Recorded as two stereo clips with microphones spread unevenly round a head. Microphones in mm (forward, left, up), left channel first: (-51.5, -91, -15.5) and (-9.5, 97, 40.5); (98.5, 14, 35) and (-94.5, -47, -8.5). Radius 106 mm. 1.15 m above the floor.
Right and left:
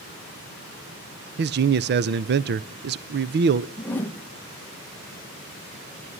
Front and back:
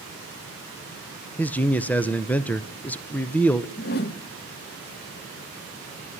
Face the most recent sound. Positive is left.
turn(degrees=-30)